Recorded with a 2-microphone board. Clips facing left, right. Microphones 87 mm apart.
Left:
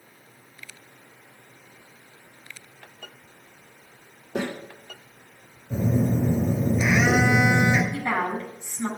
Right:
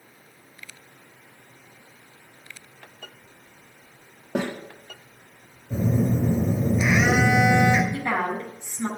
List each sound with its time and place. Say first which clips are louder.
4.3 s a snare drum: right 2 dB; 85° right, 5 m
5.7 s a phone buzzing: even; 10° right (ahead or behind), 2.5 m
7.9 s a woman speaking: even; 10° right (ahead or behind), 5 m